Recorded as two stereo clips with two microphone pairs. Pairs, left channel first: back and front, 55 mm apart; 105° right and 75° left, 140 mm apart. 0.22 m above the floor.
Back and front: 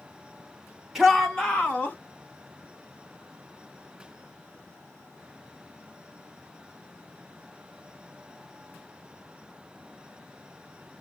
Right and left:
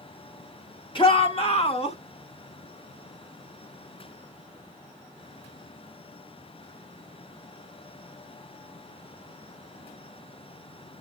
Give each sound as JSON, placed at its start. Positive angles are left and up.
{"t": 0.9, "sound": "a shout", "azimuth_deg": -85, "distance_m": 1.9}